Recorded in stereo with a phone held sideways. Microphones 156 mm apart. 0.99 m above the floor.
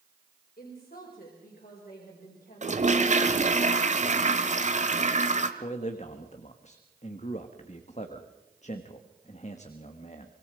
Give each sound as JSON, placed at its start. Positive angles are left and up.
{"t": 0.6, "sound": "a woman speaking", "side_deg": 75, "distance_m": 4.5}
{"t": 2.6, "sound": "a toilet flushing", "side_deg": -50, "distance_m": 1.5}
{"t": 5.6, "sound": "a man speaking", "side_deg": 50, "distance_m": 1.4}